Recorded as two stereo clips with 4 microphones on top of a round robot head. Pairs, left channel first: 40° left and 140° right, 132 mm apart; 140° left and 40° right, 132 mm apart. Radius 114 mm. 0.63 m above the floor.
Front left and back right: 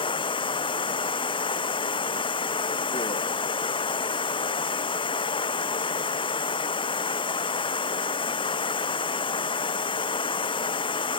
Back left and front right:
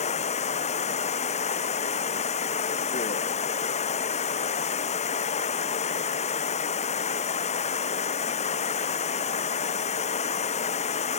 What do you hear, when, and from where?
0.0 s running water: 95° left